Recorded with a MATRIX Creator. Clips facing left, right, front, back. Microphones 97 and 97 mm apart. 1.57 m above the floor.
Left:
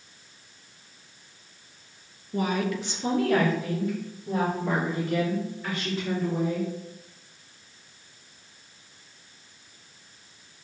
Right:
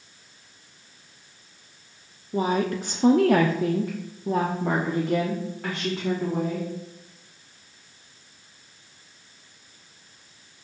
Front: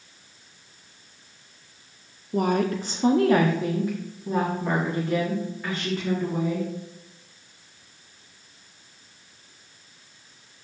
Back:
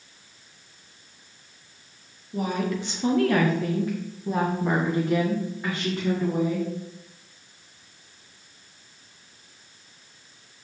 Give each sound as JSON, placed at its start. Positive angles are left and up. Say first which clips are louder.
{"t": 2.3, "sound": "a woman speaking", "louder": "right 3 dB, front 4 dB", "azimuth_deg": -20, "distance_m": 0.7}